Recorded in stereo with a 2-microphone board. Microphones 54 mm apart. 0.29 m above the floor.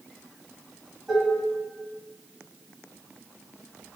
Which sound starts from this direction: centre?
Dishes clattering, at 1.1 s.